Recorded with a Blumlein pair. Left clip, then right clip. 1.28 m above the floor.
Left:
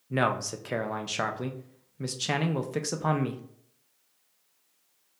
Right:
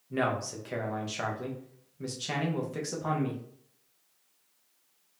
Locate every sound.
0.1 s a man speaking: 70° left, 0.7 m